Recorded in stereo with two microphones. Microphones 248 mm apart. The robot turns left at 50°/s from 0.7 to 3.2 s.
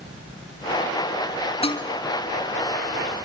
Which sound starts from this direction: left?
Dishes clattering, at 1.6 s.